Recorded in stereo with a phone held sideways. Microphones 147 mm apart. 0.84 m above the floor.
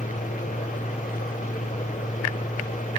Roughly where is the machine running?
Left.